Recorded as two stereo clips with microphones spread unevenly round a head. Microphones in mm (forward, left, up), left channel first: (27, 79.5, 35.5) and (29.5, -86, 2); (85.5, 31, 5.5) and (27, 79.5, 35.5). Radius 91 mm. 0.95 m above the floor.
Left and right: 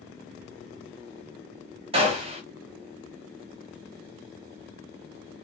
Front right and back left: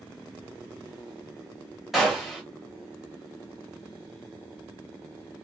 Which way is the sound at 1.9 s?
110° right.